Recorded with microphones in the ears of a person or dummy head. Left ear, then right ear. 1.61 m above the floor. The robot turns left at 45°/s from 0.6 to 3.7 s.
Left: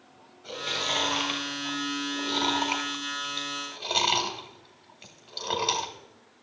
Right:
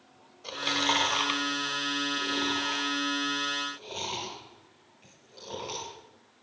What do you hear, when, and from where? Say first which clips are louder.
0.4 s chewing: right 2 dB; 35° right (ahead or behind), 1.1 m; by 5.9 s 50° left (ahead or behind), 1.1 m